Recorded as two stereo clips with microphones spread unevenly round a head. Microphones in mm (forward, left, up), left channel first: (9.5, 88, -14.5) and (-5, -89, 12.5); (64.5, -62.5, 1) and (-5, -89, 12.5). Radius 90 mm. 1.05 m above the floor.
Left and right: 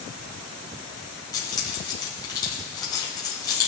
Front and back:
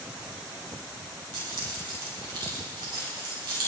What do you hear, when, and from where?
1.3 s keys jangling: 155° left, 4.5 m